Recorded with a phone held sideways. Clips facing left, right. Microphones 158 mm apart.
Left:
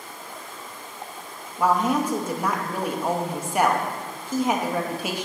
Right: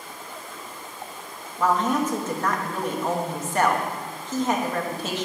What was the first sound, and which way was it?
A woman speaking, 10° left (ahead or behind).